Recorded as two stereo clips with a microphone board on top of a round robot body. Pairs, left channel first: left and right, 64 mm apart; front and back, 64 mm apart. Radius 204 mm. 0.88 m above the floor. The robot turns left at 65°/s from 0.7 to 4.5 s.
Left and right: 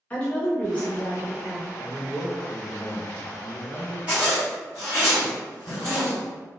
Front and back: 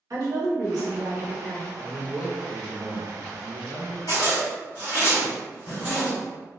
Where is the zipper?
20° right, 0.5 m; by 6.1 s 50° right, 0.5 m.